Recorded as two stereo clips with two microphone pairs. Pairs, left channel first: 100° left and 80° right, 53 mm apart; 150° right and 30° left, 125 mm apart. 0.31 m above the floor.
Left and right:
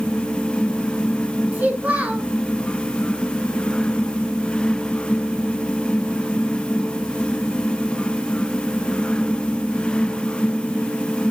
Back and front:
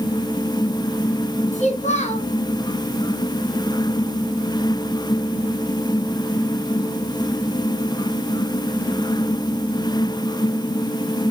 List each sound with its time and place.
1.5 s a child speaking: 140° right, 3.5 m